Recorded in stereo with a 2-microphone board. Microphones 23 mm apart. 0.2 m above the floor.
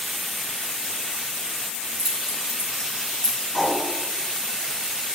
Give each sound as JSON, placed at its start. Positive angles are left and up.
{"t": 1.7, "sound": "keys jangling", "side_deg": 10, "distance_m": 3.5}
{"t": 3.5, "sound": "a whoosh", "side_deg": -10, "distance_m": 2.5}